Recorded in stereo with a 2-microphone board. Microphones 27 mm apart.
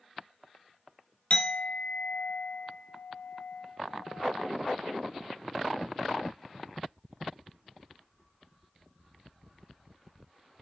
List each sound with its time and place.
1.3 s a clink: 50° left (ahead or behind), 1.1 m